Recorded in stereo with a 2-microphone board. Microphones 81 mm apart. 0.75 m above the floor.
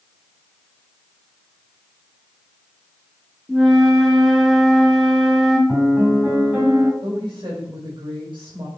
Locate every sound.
3.5 s a flute: centre (ahead or behind), 1.7 m
5.7 s a piano: 15° right (ahead or behind), 2.5 m
7.0 s a woman speaking: 75° right (ahead or behind), 3.5 m